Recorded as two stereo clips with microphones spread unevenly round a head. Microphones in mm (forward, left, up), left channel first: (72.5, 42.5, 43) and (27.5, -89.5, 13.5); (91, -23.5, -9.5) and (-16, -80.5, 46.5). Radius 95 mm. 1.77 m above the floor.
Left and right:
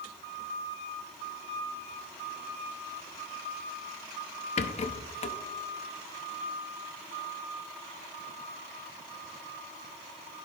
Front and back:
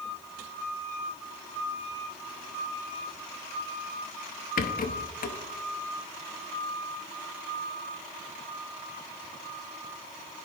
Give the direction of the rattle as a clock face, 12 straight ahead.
11 o'clock.